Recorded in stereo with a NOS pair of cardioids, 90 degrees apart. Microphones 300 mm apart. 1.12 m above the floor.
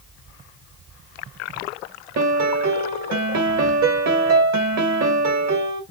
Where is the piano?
60° right, 0.9 m.